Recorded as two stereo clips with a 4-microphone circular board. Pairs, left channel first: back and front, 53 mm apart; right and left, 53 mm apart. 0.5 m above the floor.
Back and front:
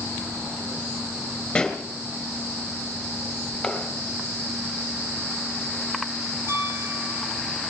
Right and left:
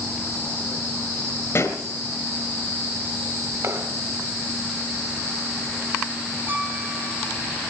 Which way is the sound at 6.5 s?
35° left.